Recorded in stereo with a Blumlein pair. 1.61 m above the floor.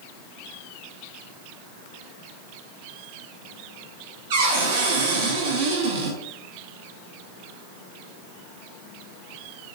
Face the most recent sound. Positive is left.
turn(degrees=-55)